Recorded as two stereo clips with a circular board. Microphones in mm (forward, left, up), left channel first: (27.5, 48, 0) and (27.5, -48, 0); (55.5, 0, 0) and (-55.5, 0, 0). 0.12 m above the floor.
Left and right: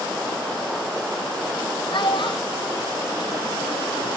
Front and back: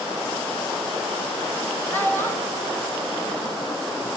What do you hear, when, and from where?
1.9 s a child speaking: 75° left, 2.5 m; by 4.1 s 45° left, 4 m